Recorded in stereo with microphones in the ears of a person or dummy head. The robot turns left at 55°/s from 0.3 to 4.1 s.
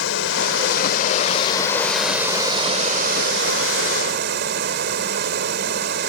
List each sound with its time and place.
0.0 s running water: 90° left; by 6.1 s 120° right